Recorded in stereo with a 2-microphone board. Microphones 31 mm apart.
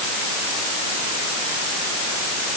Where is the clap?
I don't hear a clap.